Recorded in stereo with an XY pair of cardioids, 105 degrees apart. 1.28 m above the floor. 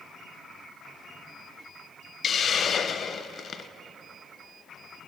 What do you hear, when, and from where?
2.2 s a hiss: 45° left, 0.5 m